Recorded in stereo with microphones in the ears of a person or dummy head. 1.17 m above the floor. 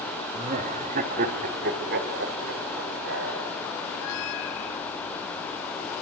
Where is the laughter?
30° right (ahead or behind), 2.5 m; by 3.4 s 60° right (ahead or behind), 4.5 m.